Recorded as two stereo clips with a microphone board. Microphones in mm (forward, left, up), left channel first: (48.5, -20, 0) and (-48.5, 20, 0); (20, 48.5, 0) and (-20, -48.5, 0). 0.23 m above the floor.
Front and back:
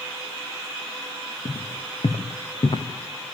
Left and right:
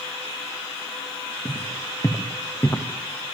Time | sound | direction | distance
1.4 | footsteps | 10° left | 3 m